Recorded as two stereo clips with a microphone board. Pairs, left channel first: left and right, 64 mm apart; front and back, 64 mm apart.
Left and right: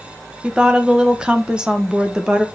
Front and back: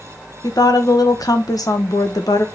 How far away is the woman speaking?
About 1.1 m.